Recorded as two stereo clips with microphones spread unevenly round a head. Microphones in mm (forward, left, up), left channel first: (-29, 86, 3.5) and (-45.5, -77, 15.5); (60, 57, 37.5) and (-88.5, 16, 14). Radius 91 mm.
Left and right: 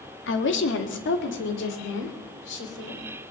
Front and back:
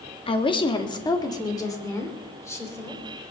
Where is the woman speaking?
75° left, 1.8 m; by 3.0 s 90° left, 4.5 m.